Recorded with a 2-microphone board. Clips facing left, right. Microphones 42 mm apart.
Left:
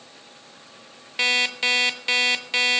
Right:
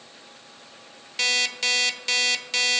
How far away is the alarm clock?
About 0.6 m.